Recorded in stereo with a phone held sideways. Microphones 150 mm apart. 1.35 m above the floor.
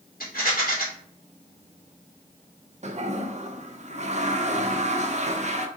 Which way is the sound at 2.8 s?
50° right (ahead or behind).